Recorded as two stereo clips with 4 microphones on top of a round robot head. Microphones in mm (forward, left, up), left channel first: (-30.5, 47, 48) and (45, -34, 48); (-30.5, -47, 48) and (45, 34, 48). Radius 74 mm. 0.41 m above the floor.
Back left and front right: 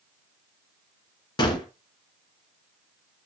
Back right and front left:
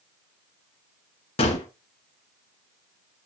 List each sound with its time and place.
1.4 s a gunshot: 175° right, 1.6 m